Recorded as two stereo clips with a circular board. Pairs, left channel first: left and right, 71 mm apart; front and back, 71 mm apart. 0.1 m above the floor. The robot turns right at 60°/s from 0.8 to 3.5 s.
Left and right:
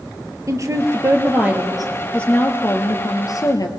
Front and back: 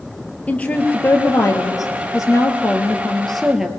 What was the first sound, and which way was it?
A woman speaking, 65° right.